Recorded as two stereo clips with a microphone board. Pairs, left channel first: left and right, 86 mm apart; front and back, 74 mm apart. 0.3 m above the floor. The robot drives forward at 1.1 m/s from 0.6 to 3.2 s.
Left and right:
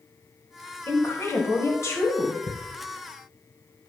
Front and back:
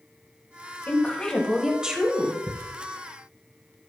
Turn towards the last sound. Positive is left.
turn(degrees=120)